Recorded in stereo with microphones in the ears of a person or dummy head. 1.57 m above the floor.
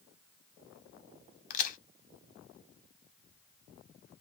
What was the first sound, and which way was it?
A crack, 50° left (ahead or behind).